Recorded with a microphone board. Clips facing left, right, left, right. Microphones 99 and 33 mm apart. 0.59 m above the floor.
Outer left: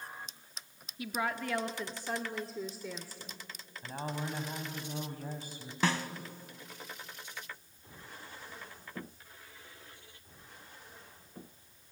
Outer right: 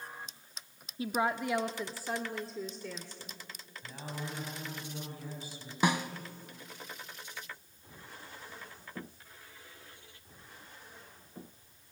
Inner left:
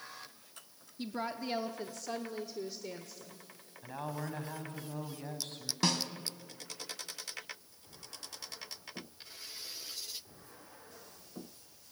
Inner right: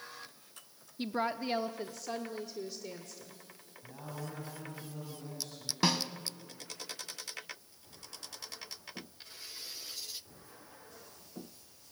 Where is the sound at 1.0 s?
30° right (ahead or behind), 0.7 m; by 3.4 s 10° left (ahead or behind), 1.7 m.